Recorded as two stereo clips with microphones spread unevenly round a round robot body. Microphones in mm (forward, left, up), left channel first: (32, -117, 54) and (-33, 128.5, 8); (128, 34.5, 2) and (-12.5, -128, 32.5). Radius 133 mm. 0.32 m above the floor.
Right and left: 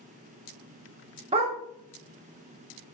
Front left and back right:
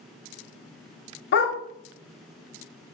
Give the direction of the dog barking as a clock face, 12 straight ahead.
10 o'clock.